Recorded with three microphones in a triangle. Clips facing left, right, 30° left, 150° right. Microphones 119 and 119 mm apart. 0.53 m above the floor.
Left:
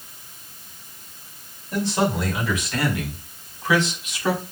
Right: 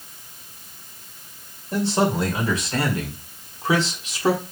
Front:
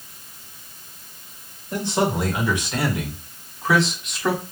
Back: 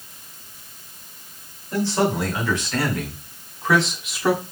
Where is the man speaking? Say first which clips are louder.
Right 1 dB, back 1 dB; 35° right, 2.5 m; by 4.4 s 75° right, 1.3 m.